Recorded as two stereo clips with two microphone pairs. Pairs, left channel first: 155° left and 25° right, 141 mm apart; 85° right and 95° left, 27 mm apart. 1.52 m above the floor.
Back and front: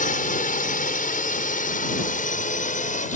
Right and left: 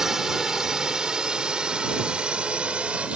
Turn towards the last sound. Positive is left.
turn(degrees=135)